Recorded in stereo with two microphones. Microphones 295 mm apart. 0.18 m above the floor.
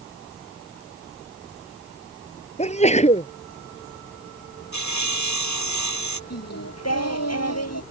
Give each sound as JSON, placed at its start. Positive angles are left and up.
{"t": 2.6, "sound": "a sneeze", "side_deg": 25}
{"t": 4.7, "sound": "sawing", "side_deg": 70}
{"t": 6.3, "sound": "singing", "side_deg": 60}